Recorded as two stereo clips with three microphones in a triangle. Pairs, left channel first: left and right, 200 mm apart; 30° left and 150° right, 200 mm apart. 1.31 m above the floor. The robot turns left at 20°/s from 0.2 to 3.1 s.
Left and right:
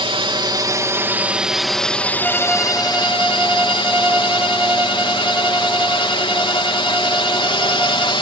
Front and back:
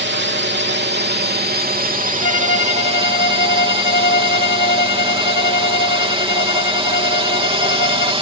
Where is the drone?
150° right; by 8.2 s 150° left.